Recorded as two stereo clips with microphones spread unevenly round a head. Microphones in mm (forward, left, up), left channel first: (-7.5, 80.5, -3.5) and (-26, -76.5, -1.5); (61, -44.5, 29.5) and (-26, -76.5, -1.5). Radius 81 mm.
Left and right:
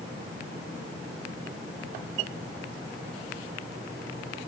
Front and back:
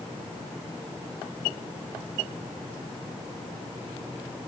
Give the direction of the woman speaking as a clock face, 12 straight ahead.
No woman speaking in this recording.